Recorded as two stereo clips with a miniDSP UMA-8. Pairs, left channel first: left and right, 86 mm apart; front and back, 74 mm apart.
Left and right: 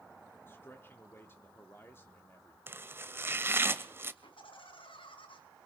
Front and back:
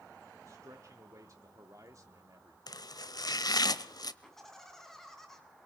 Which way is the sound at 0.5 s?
150° left.